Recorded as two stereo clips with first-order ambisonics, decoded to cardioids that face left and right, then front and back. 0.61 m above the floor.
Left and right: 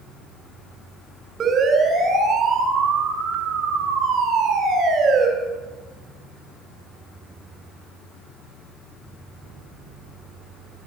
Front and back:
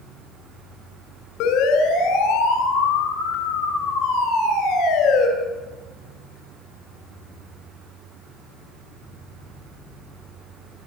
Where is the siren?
25° right, 6 m; by 5.3 s 40° right, 7.5 m.